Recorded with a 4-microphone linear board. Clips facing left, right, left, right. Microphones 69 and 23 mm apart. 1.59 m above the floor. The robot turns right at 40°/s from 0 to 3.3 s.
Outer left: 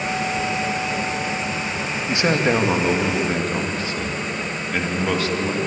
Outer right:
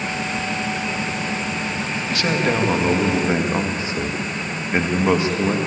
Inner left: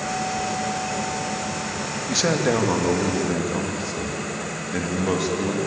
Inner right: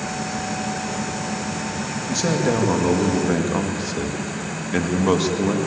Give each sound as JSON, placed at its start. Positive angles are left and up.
{"t": 2.1, "sound": "a man speaking", "azimuth_deg": 155, "distance_m": 2.5}